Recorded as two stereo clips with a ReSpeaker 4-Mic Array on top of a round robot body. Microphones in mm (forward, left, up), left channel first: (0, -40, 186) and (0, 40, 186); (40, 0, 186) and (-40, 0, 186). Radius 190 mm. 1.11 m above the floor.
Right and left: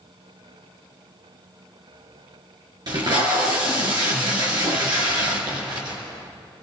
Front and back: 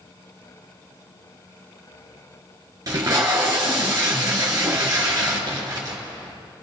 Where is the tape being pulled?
130° left, 3.5 m.